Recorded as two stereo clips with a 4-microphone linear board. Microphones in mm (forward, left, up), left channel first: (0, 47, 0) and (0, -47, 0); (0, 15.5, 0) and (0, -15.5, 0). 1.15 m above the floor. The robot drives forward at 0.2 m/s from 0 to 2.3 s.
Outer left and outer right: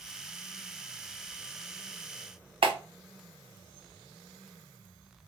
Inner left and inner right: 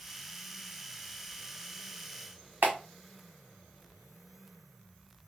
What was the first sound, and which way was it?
A clap, 80° right.